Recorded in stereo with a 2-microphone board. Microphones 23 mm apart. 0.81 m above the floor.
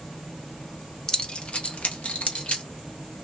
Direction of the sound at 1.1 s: 30° left (ahead or behind).